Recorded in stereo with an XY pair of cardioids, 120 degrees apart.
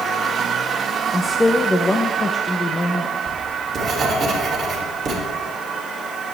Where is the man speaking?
10° left, 1.0 m.